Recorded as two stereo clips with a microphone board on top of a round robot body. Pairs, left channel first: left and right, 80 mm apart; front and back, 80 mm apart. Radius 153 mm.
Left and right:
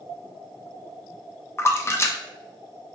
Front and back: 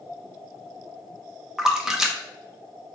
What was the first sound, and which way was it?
A splash, 105° left.